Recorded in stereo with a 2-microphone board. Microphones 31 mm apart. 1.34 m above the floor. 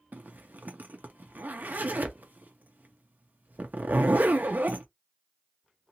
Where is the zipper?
65° right (ahead or behind), 0.7 m.